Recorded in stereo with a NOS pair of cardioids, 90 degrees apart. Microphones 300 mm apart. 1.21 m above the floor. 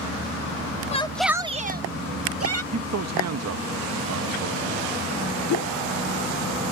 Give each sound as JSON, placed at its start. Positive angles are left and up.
{"t": 0.9, "sound": "a shout", "azimuth_deg": 20}
{"t": 2.7, "sound": "a man speaking", "azimuth_deg": -55}
{"t": 5.5, "sound": "a whoosh", "azimuth_deg": 65}